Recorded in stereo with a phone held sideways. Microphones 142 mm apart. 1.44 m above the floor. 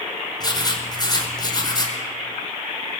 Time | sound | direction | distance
0.4 | writing | 30° left (ahead or behind) | 5 m